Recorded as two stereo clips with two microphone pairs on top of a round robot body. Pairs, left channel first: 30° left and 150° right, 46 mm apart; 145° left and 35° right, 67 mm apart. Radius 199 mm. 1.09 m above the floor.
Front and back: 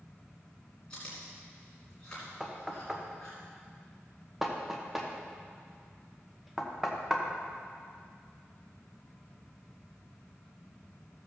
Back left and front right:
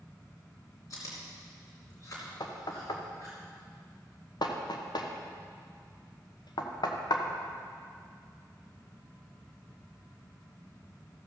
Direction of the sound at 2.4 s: 125° left.